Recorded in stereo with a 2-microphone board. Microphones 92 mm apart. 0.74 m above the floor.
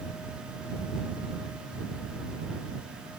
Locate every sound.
Only background noise.